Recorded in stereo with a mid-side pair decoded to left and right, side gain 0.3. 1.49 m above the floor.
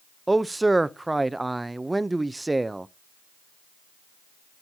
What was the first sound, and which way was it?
A man speaking, 20° right.